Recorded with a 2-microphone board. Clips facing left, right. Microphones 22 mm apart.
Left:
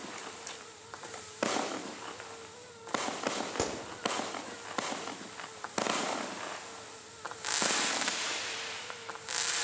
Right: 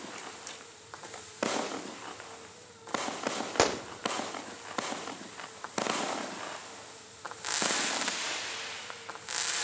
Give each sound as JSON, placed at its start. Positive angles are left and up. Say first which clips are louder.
{"t": 3.6, "sound": "a gunshot", "louder": "right 11 dB", "side_deg": -50, "distance_m": 0.6}